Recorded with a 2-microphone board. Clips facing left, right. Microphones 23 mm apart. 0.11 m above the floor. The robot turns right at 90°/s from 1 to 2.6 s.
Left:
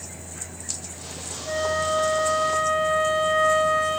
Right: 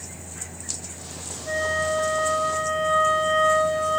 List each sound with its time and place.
1.5 s a flute: 20° right, 1.3 m; by 4.0 s 80° left, 1.3 m